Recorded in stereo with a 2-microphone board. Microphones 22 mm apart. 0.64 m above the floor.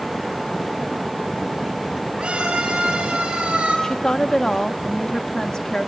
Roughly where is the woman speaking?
Left.